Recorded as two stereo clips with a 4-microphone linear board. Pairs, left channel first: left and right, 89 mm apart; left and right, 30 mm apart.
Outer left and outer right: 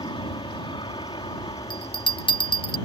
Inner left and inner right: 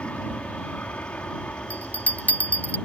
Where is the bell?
65° left (ahead or behind).